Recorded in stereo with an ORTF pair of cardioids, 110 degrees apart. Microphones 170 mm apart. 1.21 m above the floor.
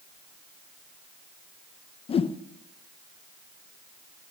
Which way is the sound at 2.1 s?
35° left.